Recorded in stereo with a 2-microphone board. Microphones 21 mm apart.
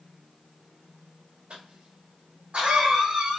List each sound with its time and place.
1.5 s a cough: 70° right (ahead or behind), 1.6 m